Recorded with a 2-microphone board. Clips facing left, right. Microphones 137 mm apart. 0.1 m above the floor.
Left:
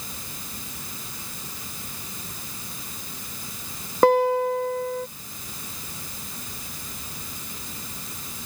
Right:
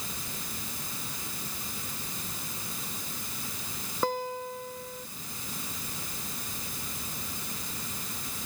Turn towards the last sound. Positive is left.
turn(degrees=70)  # may be behind; listen again after turning